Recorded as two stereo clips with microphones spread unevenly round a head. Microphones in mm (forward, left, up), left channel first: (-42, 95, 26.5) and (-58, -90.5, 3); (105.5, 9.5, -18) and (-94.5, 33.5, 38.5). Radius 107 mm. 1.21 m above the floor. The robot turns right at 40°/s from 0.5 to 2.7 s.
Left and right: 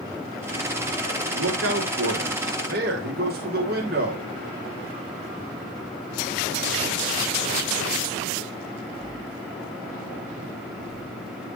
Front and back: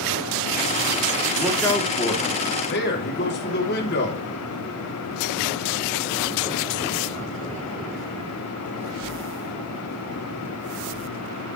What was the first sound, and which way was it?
A man speaking, 100° right.